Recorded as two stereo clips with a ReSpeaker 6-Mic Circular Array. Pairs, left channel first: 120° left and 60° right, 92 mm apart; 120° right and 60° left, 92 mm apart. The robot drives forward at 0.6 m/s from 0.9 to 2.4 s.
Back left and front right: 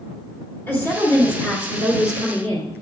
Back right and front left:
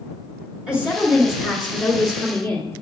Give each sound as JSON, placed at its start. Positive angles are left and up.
{"t": 0.7, "sound": "a woman speaking", "azimuth_deg": 125, "distance_m": 1.9}